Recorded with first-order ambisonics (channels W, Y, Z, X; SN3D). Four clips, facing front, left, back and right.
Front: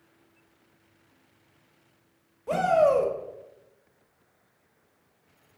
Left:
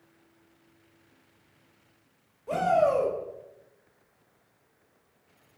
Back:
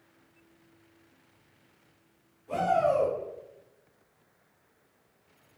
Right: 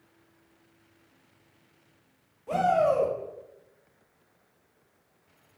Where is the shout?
Straight ahead, 1.4 m.